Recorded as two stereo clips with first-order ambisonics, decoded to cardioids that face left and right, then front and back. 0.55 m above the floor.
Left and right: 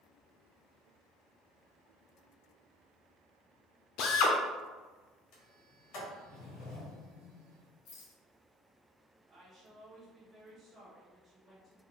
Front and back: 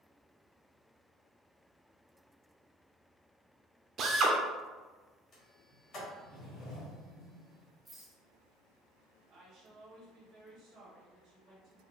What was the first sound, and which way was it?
A drill, 125° left.